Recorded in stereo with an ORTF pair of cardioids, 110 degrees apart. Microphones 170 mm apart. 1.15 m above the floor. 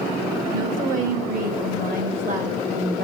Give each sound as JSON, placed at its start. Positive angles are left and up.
{"t": 0.5, "sound": "a woman speaking", "azimuth_deg": -55, "distance_m": 5.5}